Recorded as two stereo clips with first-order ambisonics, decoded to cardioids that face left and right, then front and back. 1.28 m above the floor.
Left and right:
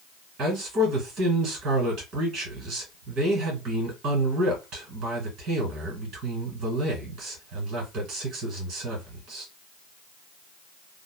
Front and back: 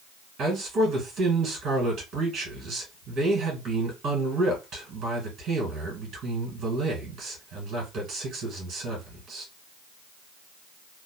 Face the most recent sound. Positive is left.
turn(degrees=-125)